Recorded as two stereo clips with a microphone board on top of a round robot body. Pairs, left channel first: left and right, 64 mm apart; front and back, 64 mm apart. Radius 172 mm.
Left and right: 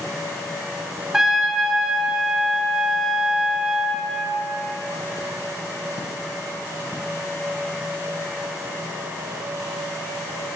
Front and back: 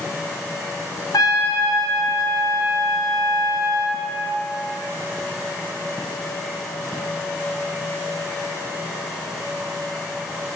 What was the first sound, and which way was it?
A trumpet, 5° right.